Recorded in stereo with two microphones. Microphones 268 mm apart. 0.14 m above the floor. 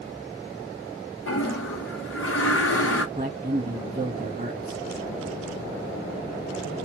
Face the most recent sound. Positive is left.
turn(degrees=-20)  # may be behind; listen again after turning